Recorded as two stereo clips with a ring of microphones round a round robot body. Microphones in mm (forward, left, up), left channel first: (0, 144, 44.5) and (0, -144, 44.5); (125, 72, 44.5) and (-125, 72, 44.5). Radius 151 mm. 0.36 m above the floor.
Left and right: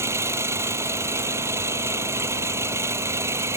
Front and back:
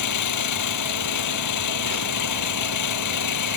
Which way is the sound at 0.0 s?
10° right.